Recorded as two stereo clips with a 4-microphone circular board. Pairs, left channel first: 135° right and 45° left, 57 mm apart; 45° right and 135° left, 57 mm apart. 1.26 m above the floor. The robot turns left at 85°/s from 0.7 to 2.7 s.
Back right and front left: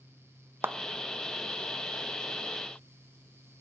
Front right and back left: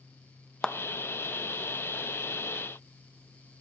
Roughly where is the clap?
Ahead left.